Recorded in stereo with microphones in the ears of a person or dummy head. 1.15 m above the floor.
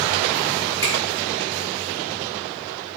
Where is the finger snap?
20° left (ahead or behind), 3 m.